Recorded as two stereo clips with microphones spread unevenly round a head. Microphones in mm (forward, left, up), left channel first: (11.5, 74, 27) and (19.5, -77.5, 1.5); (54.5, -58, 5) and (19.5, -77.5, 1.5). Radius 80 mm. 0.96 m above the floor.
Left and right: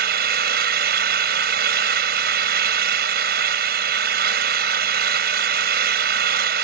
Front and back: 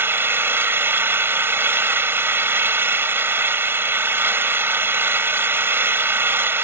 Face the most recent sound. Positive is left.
turn(degrees=-125)